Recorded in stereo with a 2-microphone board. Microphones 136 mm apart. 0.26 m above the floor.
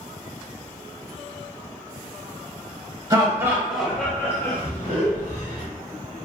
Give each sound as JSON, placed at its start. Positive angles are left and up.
{"t": 3.1, "sound": "laughter", "side_deg": -30, "distance_m": 1.1}